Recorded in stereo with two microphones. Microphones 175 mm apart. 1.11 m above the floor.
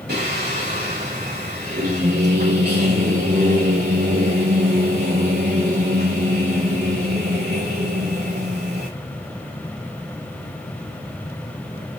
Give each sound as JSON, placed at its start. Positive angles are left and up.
{"t": 0.1, "sound": "singing", "side_deg": -70, "distance_m": 5.5}